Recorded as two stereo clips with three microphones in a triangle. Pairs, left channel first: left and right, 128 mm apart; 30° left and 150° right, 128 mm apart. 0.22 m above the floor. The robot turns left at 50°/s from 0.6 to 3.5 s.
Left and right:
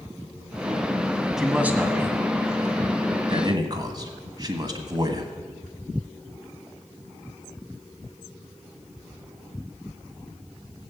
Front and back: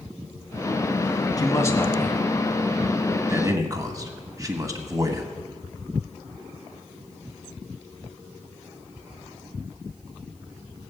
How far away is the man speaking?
About 1.5 m.